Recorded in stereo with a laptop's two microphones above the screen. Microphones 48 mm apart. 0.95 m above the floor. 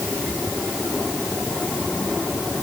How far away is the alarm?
No alarm in this recording.